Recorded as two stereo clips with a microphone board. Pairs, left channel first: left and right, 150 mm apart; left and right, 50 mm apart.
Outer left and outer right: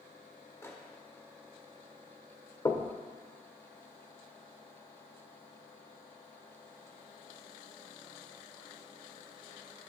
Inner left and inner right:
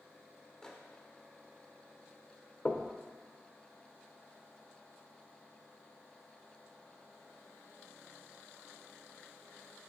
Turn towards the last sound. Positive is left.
turn(degrees=25)  # may be behind; listen again after turning